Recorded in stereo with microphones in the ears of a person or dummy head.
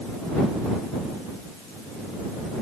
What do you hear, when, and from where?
Only background noise.